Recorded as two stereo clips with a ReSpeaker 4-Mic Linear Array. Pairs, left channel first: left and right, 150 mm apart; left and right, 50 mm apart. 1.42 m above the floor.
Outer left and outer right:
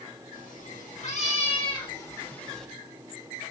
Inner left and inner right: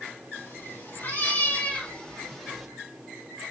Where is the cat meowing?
65° left (ahead or behind), 3 m; by 2.7 s centre (ahead or behind), 2 m.